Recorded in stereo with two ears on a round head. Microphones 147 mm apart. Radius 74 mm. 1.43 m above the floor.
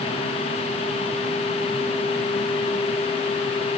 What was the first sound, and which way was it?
Only background noise.